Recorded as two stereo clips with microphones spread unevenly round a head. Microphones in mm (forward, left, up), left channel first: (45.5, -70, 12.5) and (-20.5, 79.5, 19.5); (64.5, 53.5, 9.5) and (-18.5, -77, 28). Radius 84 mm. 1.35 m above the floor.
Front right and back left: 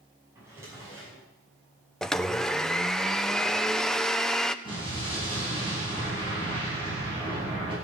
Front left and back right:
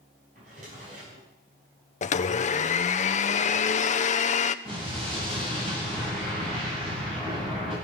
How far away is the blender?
About 0.7 m.